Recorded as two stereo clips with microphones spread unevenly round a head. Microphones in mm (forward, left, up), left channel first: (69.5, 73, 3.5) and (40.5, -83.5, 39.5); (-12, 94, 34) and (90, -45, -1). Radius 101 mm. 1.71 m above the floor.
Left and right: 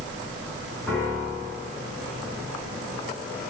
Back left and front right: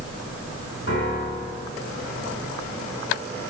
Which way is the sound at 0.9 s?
165° left.